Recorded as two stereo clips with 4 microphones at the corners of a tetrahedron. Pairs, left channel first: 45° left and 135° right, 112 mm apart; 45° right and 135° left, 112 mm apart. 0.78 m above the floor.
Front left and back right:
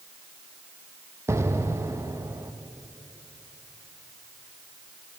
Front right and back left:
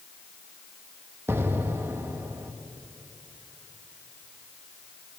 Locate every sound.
1.3 s an explosion: 175° right, 0.6 m